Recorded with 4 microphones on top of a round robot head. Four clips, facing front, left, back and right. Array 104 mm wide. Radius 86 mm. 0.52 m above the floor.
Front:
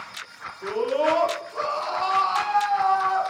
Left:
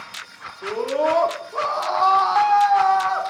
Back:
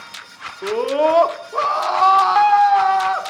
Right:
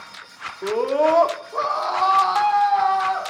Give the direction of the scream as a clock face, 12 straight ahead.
5 o'clock.